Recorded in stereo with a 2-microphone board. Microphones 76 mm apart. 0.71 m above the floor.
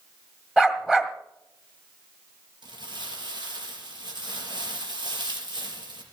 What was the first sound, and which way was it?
A dog barking, 10° right (ahead or behind).